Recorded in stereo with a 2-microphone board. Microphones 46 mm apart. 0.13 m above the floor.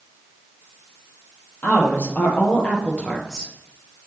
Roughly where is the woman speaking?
Left.